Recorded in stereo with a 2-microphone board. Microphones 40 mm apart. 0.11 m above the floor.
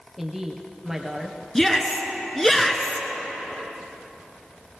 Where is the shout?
10° left (ahead or behind), 1.3 m.